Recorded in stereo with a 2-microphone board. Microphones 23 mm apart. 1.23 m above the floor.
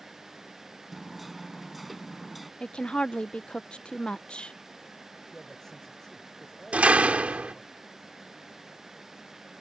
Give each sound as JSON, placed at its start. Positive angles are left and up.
{"t": 0.9, "sound": "hammering", "side_deg": -5}
{"t": 2.6, "sound": "a woman speaking", "side_deg": 50}
{"t": 5.3, "sound": "a man speaking", "side_deg": 25}
{"t": 6.7, "sound": "a door slam", "side_deg": -85}